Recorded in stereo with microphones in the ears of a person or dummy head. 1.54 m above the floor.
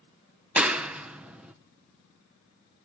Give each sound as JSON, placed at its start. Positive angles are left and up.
{"t": 0.6, "sound": "a clap", "side_deg": -10, "distance_m": 0.7}